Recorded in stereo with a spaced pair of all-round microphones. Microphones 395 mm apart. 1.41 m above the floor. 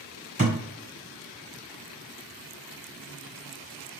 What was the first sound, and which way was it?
A thud, 20° right (ahead or behind).